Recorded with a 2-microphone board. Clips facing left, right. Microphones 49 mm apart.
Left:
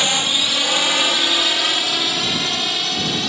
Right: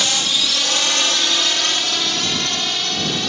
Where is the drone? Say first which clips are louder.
Left 1 dB; 15° left (ahead or behind); by 3.3 s centre (ahead or behind).